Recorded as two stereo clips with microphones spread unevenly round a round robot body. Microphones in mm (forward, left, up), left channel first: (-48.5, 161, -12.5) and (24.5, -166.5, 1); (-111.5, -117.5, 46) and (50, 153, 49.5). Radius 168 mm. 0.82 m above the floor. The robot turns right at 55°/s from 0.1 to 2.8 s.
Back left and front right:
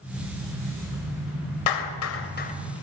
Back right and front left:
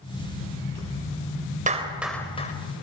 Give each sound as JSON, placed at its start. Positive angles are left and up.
{"t": 1.7, "sound": "a clap", "azimuth_deg": 125, "distance_m": 3.0}